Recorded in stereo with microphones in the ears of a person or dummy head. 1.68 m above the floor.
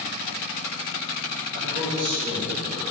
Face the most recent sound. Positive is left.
turn(degrees=-25)  # may be behind; listen again after turning